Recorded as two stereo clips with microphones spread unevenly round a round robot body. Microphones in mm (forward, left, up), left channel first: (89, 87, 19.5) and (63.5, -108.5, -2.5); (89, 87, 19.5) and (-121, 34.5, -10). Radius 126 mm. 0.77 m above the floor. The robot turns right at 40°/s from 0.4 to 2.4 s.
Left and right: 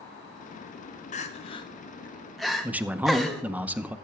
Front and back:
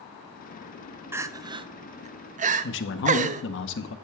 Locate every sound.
1.1 s crying: 130° left, 0.6 m; by 3.4 s straight behind, 0.6 m
2.6 s a man speaking: 20° right, 0.7 m